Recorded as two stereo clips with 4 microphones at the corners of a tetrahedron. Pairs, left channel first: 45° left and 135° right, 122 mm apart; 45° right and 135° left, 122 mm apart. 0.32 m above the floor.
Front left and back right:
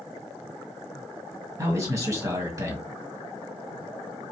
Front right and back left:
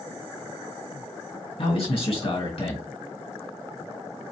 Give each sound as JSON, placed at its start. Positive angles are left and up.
{"t": 1.6, "sound": "a man speaking", "azimuth_deg": -75, "distance_m": 2.5}